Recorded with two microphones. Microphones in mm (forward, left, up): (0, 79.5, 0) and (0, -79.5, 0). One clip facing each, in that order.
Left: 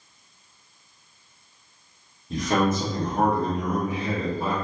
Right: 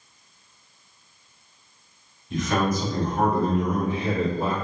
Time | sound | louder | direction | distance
2.3 | a man speaking | left 1 dB | 40° left (ahead or behind) | 0.8 m